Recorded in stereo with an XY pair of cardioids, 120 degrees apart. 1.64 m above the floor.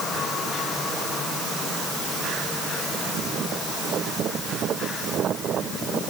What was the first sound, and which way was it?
Only background noise.